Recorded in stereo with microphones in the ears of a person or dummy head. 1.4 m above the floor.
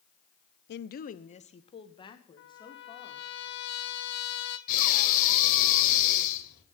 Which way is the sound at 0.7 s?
55° left (ahead or behind).